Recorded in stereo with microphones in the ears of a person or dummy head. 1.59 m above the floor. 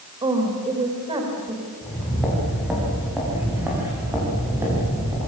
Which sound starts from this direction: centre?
Footsteps, at 1.8 s.